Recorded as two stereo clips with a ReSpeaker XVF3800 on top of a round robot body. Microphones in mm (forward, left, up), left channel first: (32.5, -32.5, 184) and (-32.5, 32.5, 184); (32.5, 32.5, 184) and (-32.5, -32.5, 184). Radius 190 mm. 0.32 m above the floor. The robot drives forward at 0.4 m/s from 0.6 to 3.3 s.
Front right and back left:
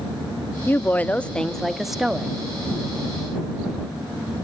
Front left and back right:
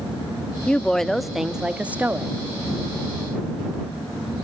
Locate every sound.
0.7 s a woman speaking: 20° right, 1.0 m; by 2.3 s 160° right, 1.0 m